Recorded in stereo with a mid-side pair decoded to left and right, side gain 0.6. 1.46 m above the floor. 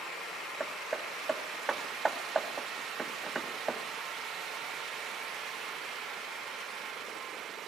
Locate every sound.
0.6 s hammering: 25° right, 2 m